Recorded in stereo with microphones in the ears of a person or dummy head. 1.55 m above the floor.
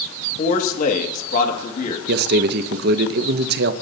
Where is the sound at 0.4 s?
45° left (ahead or behind), 2 m.